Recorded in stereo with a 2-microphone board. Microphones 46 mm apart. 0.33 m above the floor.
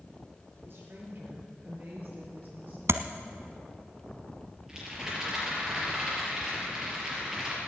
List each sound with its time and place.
0.6 s a woman speaking: 50° right (ahead or behind), 6 m; by 2.8 s 35° right (ahead or behind), 7.5 m
2.9 s tapping: 80° right, 0.8 m
4.7 s a rattle: 15° right (ahead or behind), 5 m